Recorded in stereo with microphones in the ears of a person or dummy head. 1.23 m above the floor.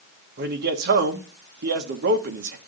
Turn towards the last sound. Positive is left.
turn(degrees=-45)  # may be behind; listen again after turning